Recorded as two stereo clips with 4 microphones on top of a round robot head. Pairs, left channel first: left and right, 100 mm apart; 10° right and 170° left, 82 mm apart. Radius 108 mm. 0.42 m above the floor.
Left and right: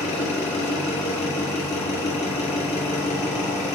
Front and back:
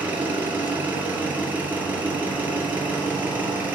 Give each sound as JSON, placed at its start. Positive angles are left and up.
{"t": 0.0, "sound": "an engine running", "azimuth_deg": 100, "distance_m": 2.5}